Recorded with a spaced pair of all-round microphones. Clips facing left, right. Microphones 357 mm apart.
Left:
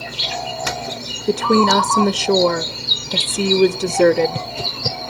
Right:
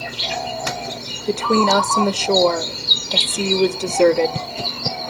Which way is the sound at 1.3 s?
25° left (ahead or behind).